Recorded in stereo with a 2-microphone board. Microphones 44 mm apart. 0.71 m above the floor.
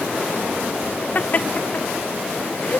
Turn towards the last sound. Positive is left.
turn(degrees=40)  # may be behind; listen again after turning